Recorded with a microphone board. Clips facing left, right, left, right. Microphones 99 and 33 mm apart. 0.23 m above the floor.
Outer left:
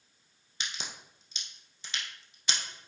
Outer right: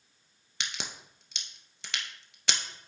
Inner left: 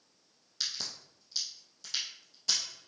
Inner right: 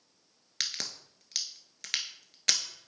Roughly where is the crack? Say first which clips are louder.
Outer right 1 dB, inner right 2 dB; right.